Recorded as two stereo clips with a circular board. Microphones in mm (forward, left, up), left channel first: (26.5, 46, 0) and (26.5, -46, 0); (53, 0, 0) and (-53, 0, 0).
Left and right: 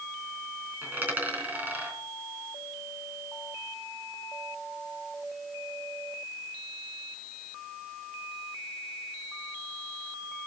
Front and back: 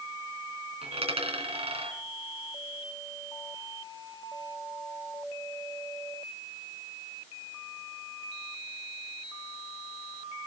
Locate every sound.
0.8 s a dropped coin: 160° right, 4 m